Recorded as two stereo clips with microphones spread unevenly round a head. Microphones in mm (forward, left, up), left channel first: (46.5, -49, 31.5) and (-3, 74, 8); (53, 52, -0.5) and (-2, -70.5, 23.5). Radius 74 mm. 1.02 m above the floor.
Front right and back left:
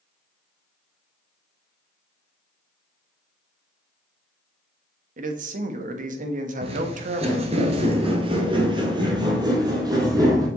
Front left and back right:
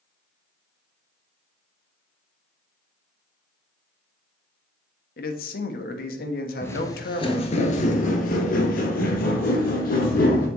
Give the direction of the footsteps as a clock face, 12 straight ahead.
7 o'clock.